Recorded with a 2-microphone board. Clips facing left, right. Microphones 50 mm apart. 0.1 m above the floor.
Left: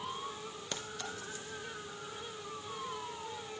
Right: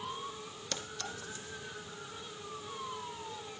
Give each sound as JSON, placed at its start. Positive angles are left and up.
{"t": 0.7, "sound": "a clink", "side_deg": 20, "distance_m": 2.5}